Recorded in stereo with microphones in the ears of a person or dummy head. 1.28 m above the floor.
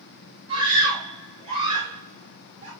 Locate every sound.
0.5 s a scream: 30° right (ahead or behind), 5.5 m; by 2.7 s 40° right (ahead or behind), 4.5 m